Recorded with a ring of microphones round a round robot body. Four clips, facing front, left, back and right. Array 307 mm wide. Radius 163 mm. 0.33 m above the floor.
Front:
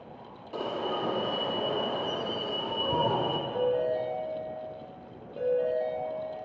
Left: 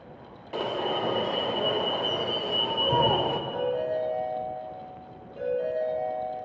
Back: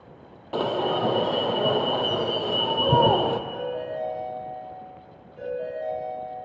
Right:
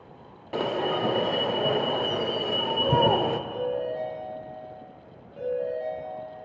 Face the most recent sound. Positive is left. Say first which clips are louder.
# left 1 dB, front 3 dB
turn(degrees=10)